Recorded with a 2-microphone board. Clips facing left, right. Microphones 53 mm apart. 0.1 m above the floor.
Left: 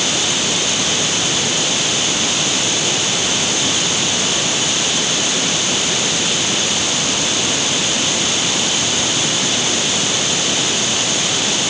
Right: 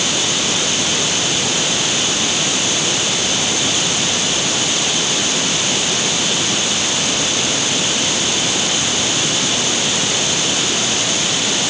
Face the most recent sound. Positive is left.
No sound to turn to.